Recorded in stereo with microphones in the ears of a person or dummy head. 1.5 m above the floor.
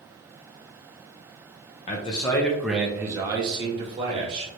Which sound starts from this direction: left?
A man speaking, at 1.9 s.